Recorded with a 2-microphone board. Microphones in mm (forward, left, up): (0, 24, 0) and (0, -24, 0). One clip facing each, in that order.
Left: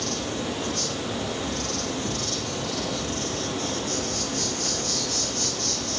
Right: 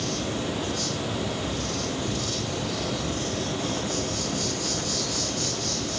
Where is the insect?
70° left (ahead or behind), 4.5 m.